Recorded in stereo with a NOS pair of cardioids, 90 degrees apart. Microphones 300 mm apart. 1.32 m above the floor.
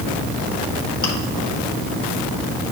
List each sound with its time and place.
1.0 s chewing: 15° left, 1.6 m